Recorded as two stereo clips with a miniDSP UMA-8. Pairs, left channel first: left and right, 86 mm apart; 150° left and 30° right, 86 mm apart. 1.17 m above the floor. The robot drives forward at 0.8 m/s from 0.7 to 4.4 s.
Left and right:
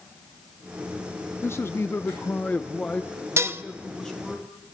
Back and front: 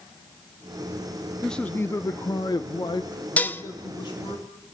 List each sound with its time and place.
1.4 s a man speaking: 65° left, 0.6 m; by 4.4 s 170° left, 2.5 m
3.4 s dishes clattering: 140° right, 0.7 m; by 3.6 s 150° right, 0.9 m